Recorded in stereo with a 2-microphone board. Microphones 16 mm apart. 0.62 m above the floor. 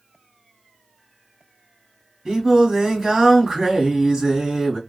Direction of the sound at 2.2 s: 40° right (ahead or behind).